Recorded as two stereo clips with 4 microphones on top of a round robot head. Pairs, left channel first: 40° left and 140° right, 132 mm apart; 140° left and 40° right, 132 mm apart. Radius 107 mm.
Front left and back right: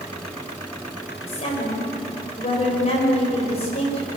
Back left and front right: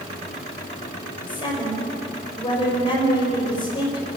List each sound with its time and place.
1.3 s a woman speaking: 85° left, 6 m